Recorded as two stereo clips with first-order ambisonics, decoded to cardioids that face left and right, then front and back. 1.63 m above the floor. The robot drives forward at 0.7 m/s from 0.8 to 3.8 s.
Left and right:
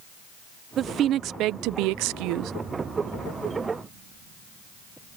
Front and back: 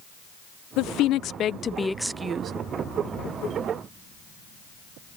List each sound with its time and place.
0.8 s a woman speaking: 35° right; by 2.5 s 125° right